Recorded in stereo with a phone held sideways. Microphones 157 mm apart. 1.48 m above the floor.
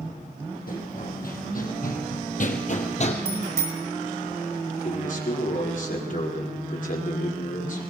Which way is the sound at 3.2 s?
85° right.